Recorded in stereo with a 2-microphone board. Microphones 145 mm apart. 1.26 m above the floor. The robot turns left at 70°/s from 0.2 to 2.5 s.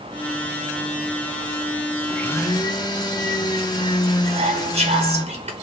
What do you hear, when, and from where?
2.1 s a blender: centre (ahead or behind), 0.6 m; by 5.2 s 30° left (ahead or behind), 0.6 m
4.2 s whispering: 55° right (ahead or behind), 0.7 m